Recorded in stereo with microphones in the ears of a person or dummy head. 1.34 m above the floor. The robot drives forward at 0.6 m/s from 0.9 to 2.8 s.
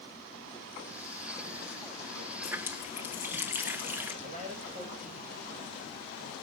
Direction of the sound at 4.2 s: 40° right (ahead or behind).